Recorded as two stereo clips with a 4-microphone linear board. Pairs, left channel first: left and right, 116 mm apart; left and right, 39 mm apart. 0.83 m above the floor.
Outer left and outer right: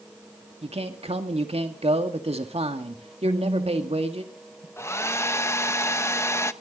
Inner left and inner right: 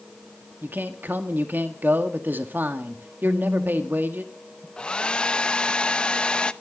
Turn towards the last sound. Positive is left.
turn(degrees=25)  # may be behind; listen again after turning